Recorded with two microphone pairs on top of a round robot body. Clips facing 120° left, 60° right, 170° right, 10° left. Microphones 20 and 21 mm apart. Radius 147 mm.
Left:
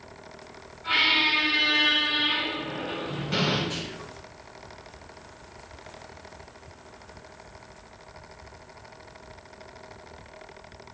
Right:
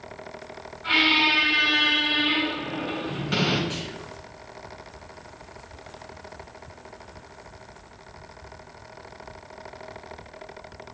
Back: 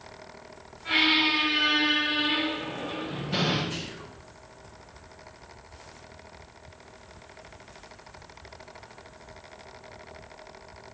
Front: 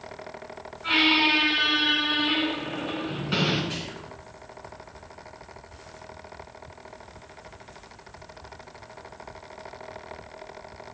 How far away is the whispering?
About 1.6 m.